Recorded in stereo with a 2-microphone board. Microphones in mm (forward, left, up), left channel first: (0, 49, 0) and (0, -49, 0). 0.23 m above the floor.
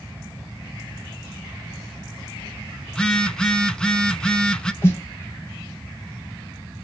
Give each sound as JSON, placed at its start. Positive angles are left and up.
{"t": 2.9, "sound": "a phone buzzing", "side_deg": 10, "distance_m": 0.6}
{"t": 4.8, "sound": "a snare drum", "side_deg": 25, "distance_m": 1.3}